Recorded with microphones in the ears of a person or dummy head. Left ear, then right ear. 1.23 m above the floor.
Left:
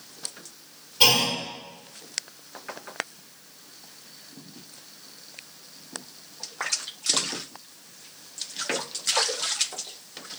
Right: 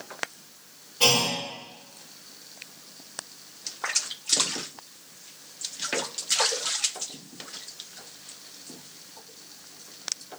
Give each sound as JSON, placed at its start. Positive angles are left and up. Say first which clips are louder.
{"t": 1.0, "sound": "a clunk", "louder": "left 2 dB", "side_deg": 30, "distance_m": 1.3}